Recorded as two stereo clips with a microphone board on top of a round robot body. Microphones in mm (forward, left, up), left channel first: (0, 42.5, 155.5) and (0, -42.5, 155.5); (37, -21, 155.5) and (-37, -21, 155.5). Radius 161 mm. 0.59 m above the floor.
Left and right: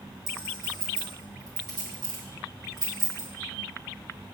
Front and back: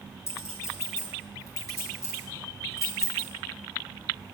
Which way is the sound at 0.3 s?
50° right.